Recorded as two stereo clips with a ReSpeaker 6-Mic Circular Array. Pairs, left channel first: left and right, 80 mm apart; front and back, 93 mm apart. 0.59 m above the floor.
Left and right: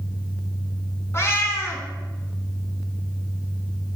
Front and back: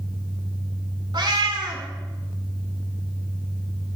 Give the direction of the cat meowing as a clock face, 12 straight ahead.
7 o'clock.